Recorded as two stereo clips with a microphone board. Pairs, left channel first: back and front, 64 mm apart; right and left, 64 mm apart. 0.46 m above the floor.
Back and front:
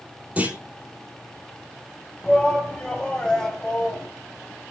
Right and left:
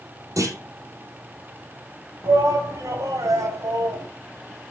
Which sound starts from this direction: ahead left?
A clunk, at 0.4 s.